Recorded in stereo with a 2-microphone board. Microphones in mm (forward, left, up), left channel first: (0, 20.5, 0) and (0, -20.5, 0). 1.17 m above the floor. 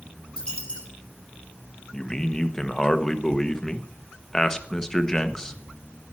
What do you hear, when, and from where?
0.4 s a dropped coin: 25° left (ahead or behind), 5 m
1.9 s a man speaking: 10° left (ahead or behind), 1.1 m